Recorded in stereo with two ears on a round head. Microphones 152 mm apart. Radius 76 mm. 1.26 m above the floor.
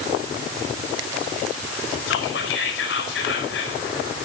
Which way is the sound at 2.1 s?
75° left (ahead or behind).